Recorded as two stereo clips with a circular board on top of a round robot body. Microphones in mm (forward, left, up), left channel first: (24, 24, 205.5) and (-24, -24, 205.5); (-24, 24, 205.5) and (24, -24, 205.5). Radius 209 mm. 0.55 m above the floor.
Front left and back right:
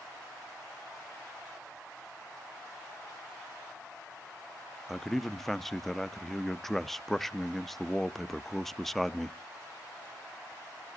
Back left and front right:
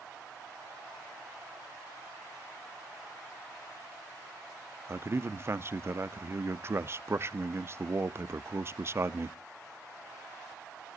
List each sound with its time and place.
4.9 s a man speaking: 40° right, 0.8 m